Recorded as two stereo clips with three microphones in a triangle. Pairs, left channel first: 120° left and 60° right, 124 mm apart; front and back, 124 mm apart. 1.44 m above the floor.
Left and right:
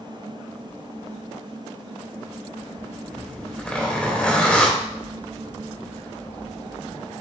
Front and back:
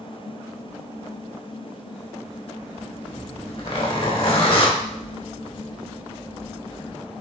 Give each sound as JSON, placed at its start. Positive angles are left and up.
{"t": 3.1, "sound": "a zipper", "azimuth_deg": 40, "distance_m": 2.5}
{"t": 4.8, "sound": "a bird", "azimuth_deg": -170, "distance_m": 2.5}